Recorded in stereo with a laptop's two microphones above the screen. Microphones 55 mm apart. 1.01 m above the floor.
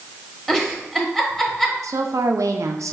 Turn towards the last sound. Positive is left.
turn(degrees=-70)  # may be behind; listen again after turning